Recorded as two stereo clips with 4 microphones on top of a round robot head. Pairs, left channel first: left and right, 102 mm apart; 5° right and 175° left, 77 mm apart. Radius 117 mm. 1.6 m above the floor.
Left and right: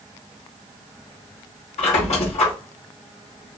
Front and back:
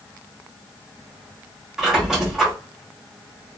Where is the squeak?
95° left, 1.4 m.